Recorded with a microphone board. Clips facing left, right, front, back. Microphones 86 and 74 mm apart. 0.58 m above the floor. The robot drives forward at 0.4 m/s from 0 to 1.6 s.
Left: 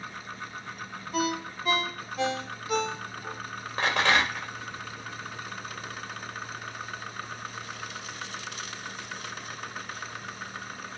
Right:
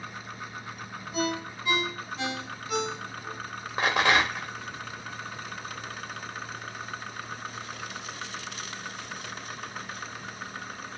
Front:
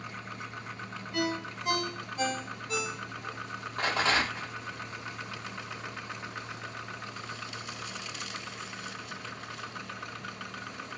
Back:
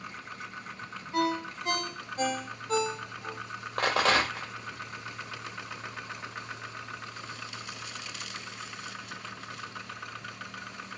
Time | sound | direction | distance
1.1 | a ringtone | 125° left | 1.1 m
3.8 | a rattle | 170° right | 1.1 m